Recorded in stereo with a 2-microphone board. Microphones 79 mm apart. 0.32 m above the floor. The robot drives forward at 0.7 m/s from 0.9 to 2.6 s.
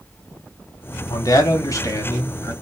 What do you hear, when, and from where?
1.1 s a man speaking: 45° left (ahead or behind), 1.4 m; by 2.5 s 35° left (ahead or behind), 1.8 m